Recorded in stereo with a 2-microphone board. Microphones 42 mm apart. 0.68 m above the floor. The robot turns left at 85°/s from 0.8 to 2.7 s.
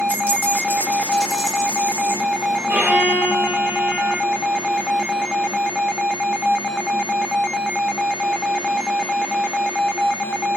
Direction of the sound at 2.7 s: 45° right (ahead or behind).